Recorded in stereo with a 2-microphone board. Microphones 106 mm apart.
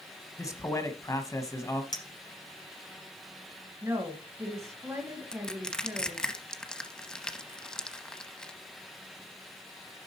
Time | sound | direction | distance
0.4 | a man speaking | 30° left (ahead or behind) | 1.1 m
1.9 | a clink | 35° left (ahead or behind) | 1.3 m
3.8 | a woman speaking | 25° right (ahead or behind) | 1.3 m
5.3 | crushing | 5° left (ahead or behind) | 0.8 m